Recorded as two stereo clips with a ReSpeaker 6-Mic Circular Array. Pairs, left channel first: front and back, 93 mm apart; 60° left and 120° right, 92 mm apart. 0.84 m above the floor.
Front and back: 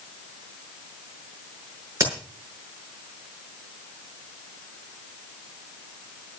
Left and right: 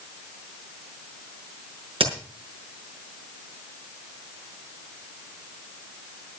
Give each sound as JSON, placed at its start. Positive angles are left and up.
{"t": 2.0, "sound": "a crack", "azimuth_deg": -120, "distance_m": 5.5}